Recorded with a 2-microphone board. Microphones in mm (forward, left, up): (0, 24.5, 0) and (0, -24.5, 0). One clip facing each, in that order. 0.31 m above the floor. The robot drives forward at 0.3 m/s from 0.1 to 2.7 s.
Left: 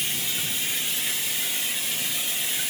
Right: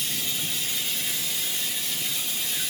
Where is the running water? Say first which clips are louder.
Left 1 dB; 75° left (ahead or behind), 2 m; by 2.7 s 80° left, 2 m.